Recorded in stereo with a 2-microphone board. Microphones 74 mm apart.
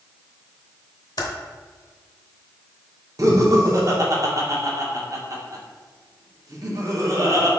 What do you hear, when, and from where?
1.2 s typing on a keyboard: 65° left (ahead or behind), 0.7 m
3.2 s laughter: 50° right (ahead or behind), 1.0 m